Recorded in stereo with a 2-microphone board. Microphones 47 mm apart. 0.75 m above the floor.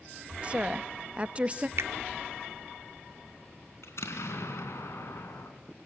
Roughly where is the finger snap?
Right.